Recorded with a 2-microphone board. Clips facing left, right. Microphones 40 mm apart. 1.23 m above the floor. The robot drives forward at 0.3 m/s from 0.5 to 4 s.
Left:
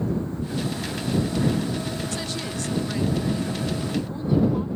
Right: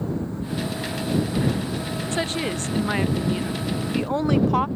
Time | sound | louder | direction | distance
2.1 | a woman speaking | right 5 dB | 40° right (ahead or behind) | ?